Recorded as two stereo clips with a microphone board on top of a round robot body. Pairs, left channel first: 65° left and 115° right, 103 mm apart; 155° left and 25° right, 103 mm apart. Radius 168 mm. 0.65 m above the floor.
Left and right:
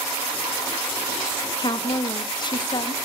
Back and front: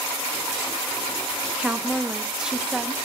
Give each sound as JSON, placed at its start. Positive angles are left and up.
{"t": 1.6, "sound": "a woman speaking", "azimuth_deg": 60, "distance_m": 1.5}